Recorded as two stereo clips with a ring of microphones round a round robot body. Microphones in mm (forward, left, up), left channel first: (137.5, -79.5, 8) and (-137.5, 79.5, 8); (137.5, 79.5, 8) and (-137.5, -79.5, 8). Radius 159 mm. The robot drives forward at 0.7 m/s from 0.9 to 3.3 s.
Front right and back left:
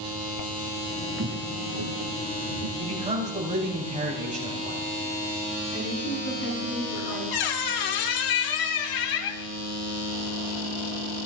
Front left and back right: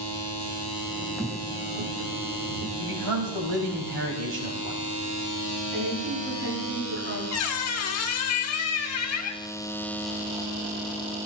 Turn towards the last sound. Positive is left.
turn(degrees=-15)